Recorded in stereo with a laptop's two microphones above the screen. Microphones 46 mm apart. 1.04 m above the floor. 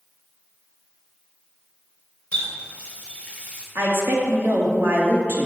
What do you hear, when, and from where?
2.3 s a running tap: 25° left (ahead or behind), 3 m
3.8 s a woman speaking: 55° right (ahead or behind), 2.5 m